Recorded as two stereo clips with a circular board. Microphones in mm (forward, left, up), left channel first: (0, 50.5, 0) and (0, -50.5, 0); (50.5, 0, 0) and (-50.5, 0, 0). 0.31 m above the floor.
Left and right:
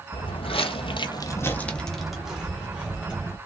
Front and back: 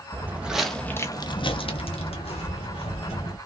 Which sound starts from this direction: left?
Footsteps, at 0.1 s.